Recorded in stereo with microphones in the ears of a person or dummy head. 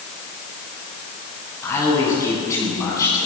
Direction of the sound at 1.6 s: 15° left (ahead or behind).